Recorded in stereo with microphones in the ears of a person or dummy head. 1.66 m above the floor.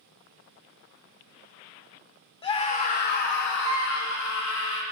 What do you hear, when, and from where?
2.4 s a scream: 30° left (ahead or behind), 1.1 m; by 4.8 s 80° left, 2.5 m